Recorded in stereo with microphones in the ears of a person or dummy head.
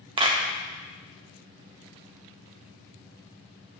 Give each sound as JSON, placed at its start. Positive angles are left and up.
{"t": 0.2, "sound": "a clap", "side_deg": -30, "distance_m": 1.5}